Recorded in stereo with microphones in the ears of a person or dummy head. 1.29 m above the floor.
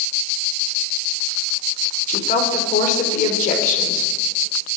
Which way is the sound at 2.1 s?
45° left (ahead or behind).